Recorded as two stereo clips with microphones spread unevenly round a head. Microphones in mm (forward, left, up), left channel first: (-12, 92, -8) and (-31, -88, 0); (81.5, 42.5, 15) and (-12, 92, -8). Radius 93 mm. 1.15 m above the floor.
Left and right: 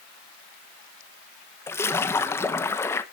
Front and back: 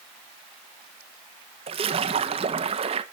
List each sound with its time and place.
1.7 s a splash: 160° left, 1.2 m